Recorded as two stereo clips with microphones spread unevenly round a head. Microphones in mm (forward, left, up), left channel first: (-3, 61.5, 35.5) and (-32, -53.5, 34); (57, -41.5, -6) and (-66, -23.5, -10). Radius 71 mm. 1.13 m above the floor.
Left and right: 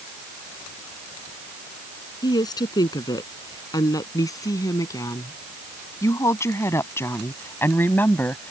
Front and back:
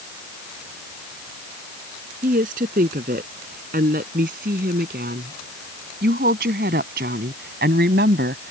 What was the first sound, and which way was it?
A woman speaking, 135° left.